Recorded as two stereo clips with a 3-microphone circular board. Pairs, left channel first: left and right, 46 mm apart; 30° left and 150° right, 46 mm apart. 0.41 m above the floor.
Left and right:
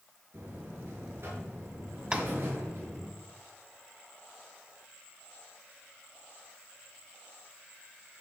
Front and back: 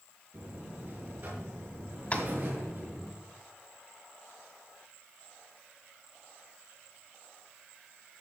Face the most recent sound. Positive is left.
turn(degrees=-20)